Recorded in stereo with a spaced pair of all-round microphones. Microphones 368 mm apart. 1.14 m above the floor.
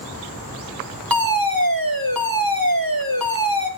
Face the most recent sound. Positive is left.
turn(degrees=-65)  # may be behind; listen again after turning